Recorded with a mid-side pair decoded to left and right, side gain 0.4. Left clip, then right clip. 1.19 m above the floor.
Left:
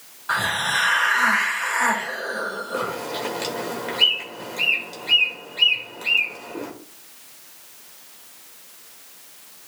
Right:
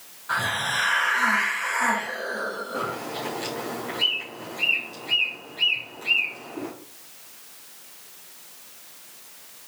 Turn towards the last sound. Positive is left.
turn(degrees=70)